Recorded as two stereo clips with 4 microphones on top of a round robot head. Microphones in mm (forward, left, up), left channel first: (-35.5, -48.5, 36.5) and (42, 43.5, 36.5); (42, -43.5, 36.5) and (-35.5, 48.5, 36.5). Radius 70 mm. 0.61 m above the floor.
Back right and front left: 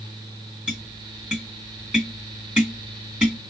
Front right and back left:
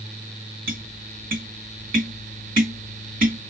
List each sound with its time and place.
0.7 s tapping: 130° left, 2.5 m